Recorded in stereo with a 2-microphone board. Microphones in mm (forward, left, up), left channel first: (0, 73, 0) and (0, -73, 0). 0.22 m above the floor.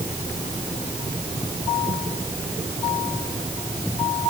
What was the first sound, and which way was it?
Only background noise.